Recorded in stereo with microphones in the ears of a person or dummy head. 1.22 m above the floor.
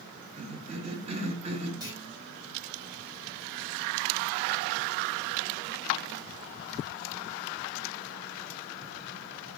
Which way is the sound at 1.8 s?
15° right (ahead or behind).